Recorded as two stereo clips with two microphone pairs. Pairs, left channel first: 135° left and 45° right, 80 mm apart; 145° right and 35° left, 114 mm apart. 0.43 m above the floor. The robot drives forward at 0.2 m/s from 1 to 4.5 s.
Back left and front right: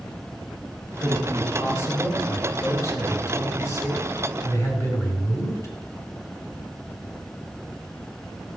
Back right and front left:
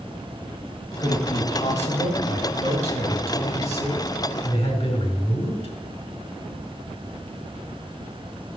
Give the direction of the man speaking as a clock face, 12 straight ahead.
6 o'clock.